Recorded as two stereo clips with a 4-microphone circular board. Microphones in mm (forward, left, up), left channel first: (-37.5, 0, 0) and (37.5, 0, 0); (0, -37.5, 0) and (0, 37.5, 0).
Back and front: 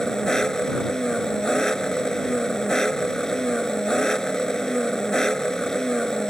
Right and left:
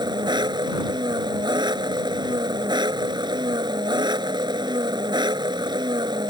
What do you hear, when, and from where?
0.0 s an engine running: 95° left